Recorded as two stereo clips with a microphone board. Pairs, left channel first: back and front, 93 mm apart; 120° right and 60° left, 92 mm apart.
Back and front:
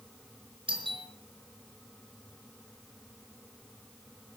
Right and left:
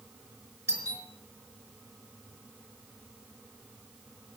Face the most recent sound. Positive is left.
turn(degrees=0)